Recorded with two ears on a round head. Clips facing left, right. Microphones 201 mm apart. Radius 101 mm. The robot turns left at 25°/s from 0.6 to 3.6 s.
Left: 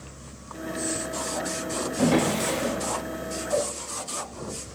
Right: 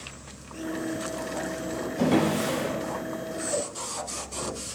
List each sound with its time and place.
2.0 s a drawer: 5° left (ahead or behind), 1.3 m; by 2.7 s 15° right (ahead or behind), 1.3 m